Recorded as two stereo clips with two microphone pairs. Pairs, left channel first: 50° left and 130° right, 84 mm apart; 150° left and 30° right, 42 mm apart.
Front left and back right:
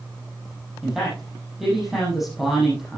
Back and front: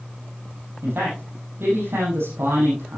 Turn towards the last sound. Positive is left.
turn(degrees=-40)